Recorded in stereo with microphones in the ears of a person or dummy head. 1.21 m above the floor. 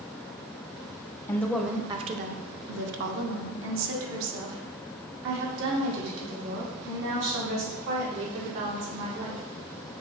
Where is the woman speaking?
15° left (ahead or behind), 0.6 m; by 9.4 s 70° right (ahead or behind), 4.5 m.